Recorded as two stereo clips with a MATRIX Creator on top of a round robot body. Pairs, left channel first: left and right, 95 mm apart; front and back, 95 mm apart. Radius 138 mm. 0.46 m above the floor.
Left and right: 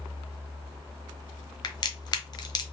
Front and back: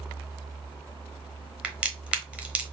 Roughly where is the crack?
Left.